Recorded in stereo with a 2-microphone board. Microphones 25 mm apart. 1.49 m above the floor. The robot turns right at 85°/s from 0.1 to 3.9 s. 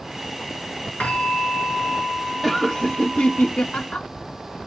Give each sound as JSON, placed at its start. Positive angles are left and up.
{"t": 1.0, "sound": "a bell", "azimuth_deg": 85, "distance_m": 4.5}
{"t": 2.4, "sound": "laughter", "azimuth_deg": 0, "distance_m": 0.8}